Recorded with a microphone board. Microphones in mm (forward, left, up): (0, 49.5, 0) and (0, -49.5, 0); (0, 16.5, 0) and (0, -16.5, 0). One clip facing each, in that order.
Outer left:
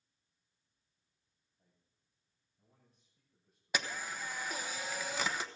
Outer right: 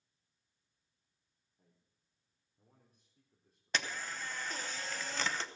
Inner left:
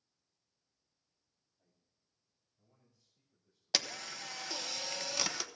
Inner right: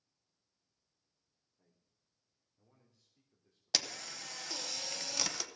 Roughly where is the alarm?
I don't hear an alarm.